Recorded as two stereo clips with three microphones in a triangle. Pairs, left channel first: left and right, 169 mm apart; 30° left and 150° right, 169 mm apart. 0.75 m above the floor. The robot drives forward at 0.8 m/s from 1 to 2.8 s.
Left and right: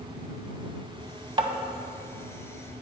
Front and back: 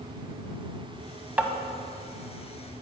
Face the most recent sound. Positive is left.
turn(degrees=-160)